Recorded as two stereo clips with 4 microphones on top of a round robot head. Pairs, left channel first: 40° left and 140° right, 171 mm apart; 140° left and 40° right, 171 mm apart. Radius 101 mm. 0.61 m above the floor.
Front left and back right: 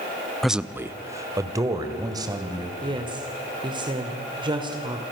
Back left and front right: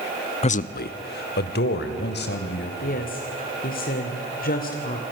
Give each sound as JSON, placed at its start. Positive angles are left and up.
{"t": 0.4, "sound": "a man speaking", "azimuth_deg": 130, "distance_m": 0.7}
{"t": 2.8, "sound": "a woman speaking", "azimuth_deg": 160, "distance_m": 2.5}